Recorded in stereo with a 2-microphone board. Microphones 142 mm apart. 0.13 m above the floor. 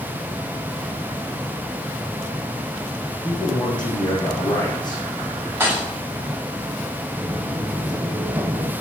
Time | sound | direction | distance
3.2 | a man speaking | 30° left (ahead or behind) | 7 m
5.6 | a thud | 15° right (ahead or behind) | 6.5 m
7.2 | footsteps | 10° left (ahead or behind) | 2 m